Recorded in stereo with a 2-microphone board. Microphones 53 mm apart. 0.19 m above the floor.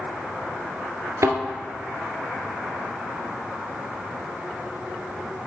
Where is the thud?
65° right (ahead or behind), 1.4 m.